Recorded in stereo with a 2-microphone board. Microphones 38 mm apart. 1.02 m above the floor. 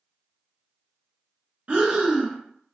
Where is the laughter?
I don't hear laughter.